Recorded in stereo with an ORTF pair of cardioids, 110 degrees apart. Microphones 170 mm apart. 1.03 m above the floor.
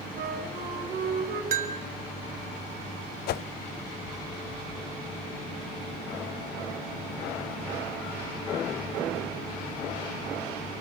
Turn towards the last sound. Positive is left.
turn(degrees=70)